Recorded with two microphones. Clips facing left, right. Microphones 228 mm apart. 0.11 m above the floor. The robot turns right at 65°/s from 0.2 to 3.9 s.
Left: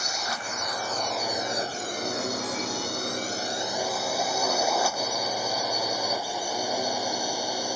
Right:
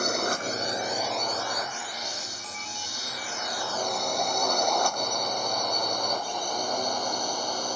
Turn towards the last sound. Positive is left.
turn(degrees=10)  # may be behind; listen again after turning